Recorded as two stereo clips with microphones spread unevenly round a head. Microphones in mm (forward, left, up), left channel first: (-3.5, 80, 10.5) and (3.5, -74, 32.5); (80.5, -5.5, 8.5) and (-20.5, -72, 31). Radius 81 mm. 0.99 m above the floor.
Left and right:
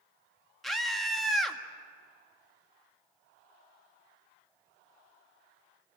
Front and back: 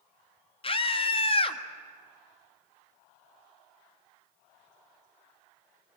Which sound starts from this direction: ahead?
A scream, at 0.6 s.